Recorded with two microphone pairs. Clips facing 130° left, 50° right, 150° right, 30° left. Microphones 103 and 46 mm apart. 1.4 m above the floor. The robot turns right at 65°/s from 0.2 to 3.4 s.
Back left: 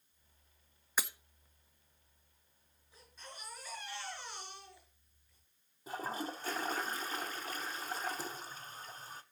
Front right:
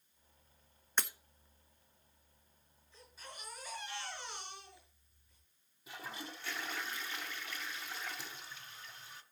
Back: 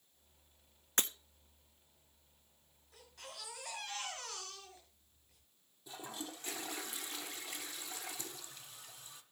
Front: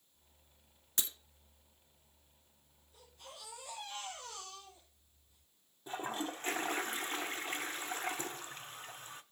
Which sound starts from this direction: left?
A toilet flushing, at 5.9 s.